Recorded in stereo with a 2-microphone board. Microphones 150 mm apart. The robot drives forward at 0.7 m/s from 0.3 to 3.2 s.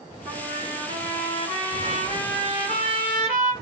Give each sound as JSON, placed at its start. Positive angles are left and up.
{"t": 0.2, "sound": "a trumpet", "side_deg": 20, "distance_m": 3.0}